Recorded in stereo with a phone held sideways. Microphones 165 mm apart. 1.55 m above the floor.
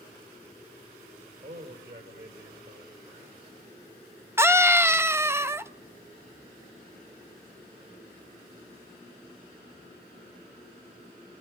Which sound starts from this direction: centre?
A scream, at 4.4 s.